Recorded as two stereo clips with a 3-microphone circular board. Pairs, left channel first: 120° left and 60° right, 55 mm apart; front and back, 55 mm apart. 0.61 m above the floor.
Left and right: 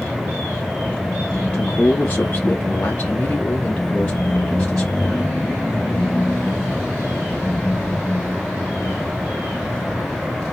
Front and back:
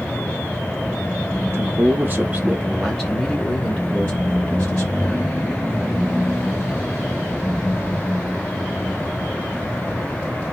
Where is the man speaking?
170° right, 0.9 m; by 5.3 s 45° left, 2 m.